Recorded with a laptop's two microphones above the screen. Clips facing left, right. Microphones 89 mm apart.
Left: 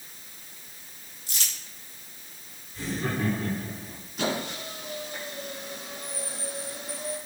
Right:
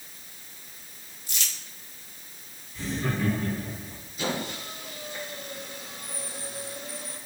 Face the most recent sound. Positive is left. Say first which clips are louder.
# left 1 dB
turn(degrees=80)